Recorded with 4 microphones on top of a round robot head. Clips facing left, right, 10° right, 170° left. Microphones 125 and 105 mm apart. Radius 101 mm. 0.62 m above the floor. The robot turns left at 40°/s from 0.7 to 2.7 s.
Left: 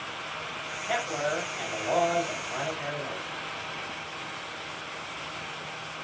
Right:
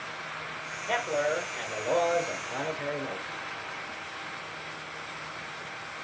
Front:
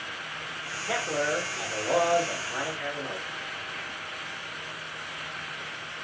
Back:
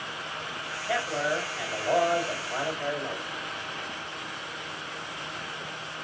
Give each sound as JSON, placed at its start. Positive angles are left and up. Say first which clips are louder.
{"t": 0.9, "sound": "a man speaking", "louder": "right 2 dB, even", "azimuth_deg": -30, "distance_m": 1.9}